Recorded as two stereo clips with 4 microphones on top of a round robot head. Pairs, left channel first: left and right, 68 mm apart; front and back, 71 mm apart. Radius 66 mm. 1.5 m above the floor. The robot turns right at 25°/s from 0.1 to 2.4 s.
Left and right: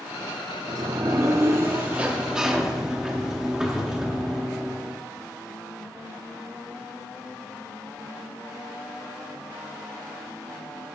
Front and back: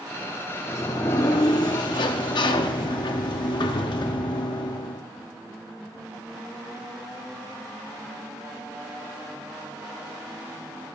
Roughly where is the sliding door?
Ahead right.